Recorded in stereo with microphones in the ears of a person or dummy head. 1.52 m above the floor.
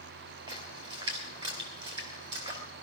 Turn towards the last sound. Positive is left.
turn(degrees=-30)  # may be behind; listen again after turning